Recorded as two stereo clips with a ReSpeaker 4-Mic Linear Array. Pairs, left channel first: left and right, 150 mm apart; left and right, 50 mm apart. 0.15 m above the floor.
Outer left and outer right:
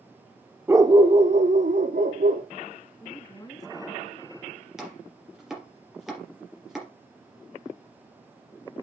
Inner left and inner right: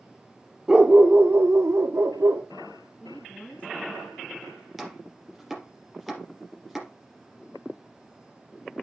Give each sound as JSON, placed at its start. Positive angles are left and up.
{"t": 0.7, "sound": "a dog barking", "side_deg": -15, "distance_m": 1.0}
{"t": 3.0, "sound": "a woman speaking", "side_deg": 25, "distance_m": 1.5}
{"t": 4.8, "sound": "chopping", "side_deg": -5, "distance_m": 4.5}